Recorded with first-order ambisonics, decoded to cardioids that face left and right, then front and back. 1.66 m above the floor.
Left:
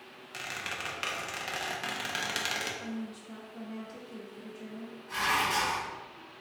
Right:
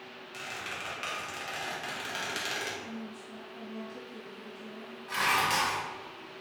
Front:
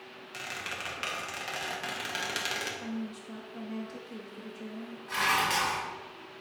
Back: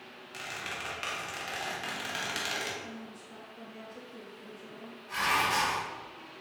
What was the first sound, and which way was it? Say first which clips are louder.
A squeak: left 2 dB, front 1 dB; 60° left.